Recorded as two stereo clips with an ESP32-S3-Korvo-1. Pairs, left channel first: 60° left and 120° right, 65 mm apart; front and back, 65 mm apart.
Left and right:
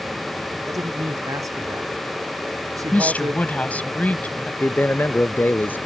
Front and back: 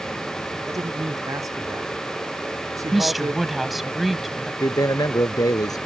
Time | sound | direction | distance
0.7 | a man speaking | 150° right | ?
2.9 | a woman speaking | 95° left | ?
4.6 | a man speaking | straight ahead | ?